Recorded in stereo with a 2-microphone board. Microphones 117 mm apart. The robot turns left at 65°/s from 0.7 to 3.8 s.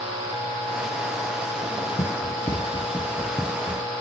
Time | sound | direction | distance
2.0 | running footsteps | 85° left | ?